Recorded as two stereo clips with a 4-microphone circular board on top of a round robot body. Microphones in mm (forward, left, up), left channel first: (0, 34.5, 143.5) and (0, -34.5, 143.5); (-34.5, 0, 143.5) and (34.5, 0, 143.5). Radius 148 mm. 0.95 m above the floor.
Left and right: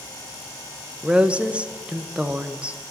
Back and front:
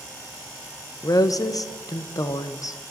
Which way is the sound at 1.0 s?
160° right.